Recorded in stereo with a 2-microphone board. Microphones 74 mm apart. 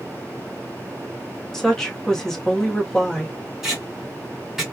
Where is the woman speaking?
5° left (ahead or behind), 1.2 m.